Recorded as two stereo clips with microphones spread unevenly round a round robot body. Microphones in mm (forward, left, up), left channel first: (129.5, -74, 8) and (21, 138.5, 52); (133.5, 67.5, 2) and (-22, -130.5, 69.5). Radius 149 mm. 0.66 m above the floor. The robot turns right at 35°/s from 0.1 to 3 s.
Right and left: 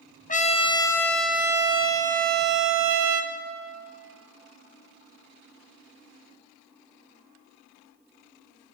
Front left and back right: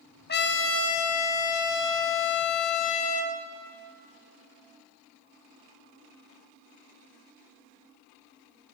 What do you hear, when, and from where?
0.3 s a trumpet: 5° right, 1.4 m; by 3.3 s 90° left, 1.4 m